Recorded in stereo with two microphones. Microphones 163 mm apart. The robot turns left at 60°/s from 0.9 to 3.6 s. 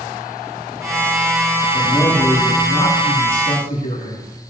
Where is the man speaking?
155° left, 6 m; by 4.2 s 45° left, 6 m.